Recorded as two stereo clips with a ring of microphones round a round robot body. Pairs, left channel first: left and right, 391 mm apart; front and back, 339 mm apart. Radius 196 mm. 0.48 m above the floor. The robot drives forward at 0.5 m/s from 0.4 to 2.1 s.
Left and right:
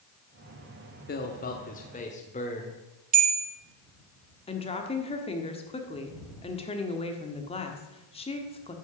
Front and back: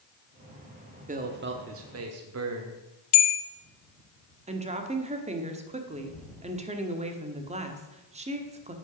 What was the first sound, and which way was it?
A man speaking, 130° left.